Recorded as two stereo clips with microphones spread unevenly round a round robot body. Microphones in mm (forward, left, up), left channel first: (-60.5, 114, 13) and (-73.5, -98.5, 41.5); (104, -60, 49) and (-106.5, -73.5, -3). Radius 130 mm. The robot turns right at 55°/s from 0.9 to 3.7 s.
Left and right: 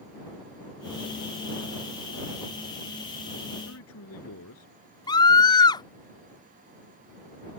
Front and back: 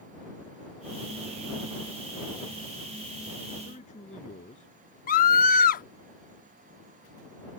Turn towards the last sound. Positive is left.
turn(degrees=45)